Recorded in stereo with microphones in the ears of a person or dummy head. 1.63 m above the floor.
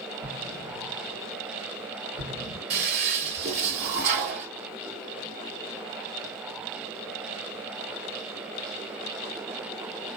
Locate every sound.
0.2 s an explosion: 75° right (ahead or behind), 2.5 m
2.7 s a toilet flushing: 45° right (ahead or behind), 2.5 m